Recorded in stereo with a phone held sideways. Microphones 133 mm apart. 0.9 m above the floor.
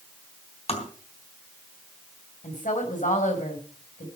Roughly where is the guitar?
No guitar in this recording.